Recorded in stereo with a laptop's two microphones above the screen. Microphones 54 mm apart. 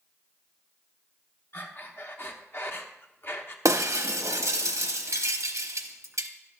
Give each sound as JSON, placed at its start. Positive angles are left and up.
{"t": 1.5, "sound": "breathing", "side_deg": 50, "distance_m": 0.9}
{"t": 3.6, "sound": "breaking glass", "side_deg": -85, "distance_m": 0.7}